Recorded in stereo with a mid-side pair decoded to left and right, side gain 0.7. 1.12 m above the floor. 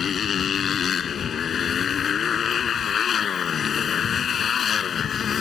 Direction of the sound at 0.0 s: 35° left.